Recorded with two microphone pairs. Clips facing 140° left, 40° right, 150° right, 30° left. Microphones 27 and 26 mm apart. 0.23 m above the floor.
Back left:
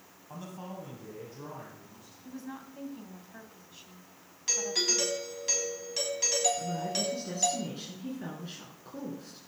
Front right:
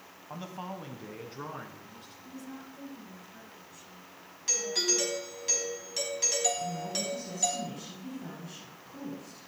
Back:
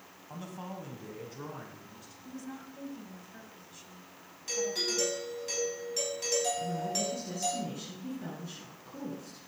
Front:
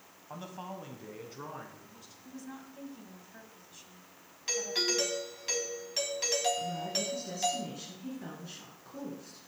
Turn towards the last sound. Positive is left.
turn(degrees=105)